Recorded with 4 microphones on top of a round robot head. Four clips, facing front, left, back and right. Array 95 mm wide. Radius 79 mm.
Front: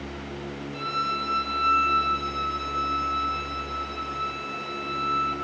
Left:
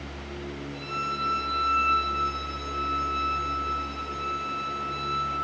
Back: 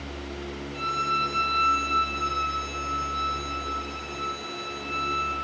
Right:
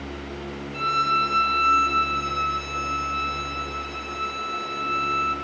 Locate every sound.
0.7 s a violin: 90° right, 4 m